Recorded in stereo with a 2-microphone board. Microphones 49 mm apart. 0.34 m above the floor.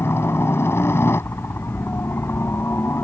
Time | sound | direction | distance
0.0 | a helicopter | 55° left (ahead or behind) | ?